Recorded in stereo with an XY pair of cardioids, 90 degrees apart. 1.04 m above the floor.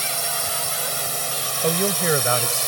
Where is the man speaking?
30° right.